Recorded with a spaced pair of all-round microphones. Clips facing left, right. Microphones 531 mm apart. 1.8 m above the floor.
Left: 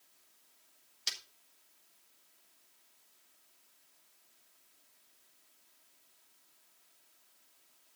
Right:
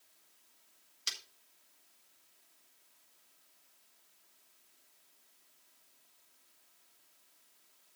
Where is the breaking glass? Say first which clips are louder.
Left 1 dB; 15° left (ahead or behind), 3.5 m.